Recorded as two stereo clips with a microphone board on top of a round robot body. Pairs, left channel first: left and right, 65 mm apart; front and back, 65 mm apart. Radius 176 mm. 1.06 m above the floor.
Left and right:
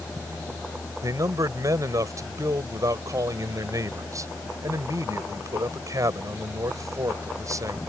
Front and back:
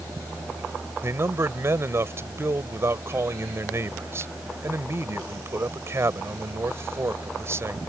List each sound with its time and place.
1.0 s a man speaking: 130° right